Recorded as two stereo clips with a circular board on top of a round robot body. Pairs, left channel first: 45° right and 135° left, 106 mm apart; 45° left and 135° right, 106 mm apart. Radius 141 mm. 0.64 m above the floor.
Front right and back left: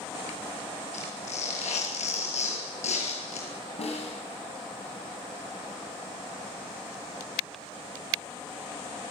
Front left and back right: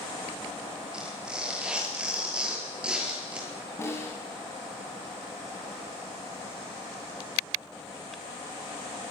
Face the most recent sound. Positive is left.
turn(degrees=-20)